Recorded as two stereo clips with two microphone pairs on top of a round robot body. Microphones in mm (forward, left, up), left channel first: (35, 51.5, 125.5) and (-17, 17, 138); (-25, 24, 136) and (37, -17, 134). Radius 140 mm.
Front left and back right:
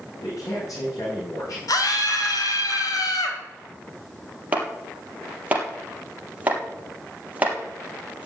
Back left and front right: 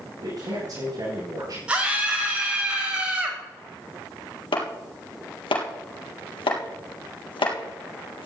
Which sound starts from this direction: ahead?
A man speaking, at 0.2 s.